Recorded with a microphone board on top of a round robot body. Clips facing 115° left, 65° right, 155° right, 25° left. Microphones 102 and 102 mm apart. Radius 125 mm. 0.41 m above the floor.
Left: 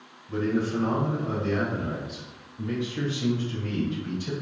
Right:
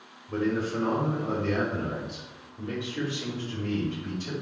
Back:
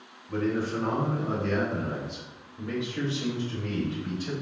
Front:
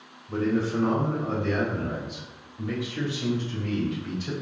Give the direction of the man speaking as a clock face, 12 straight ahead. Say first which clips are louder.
Left 1 dB, front 2 dB; 1 o'clock.